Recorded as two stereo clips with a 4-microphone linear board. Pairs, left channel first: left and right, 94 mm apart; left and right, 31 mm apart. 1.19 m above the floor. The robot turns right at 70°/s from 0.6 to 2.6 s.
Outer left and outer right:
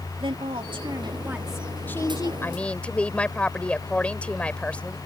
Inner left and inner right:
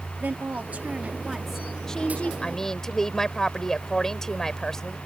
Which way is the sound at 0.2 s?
70° right.